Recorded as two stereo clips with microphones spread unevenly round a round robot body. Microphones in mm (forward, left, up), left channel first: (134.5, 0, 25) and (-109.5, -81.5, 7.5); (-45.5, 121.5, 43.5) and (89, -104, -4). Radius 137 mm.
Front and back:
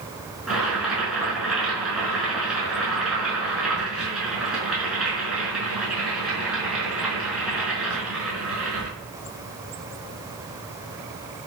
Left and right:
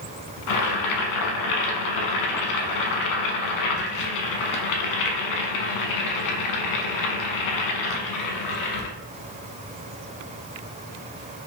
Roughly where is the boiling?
Left.